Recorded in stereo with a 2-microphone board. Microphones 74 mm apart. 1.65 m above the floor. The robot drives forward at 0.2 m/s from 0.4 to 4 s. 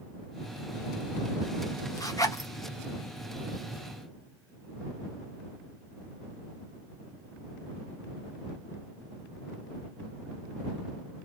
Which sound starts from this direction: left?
A zipper, at 2.0 s.